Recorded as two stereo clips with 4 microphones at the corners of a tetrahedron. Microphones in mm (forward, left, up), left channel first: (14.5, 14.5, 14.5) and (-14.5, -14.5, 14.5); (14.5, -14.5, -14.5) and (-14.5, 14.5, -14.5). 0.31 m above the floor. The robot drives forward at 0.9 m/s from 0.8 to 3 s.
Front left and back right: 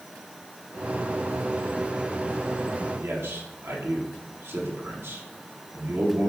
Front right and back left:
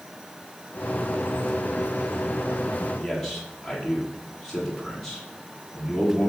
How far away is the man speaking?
About 6 m.